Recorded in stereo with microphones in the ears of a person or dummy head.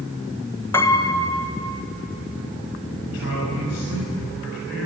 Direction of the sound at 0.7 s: 15° left (ahead or behind).